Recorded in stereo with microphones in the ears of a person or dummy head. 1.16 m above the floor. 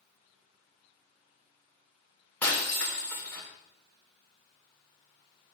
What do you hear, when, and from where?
2.4 s breaking glass: 5° left (ahead or behind), 2.5 m